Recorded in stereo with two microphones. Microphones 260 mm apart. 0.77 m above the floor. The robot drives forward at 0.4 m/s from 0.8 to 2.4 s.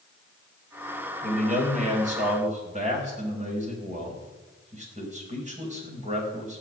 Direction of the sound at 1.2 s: 30° right (ahead or behind).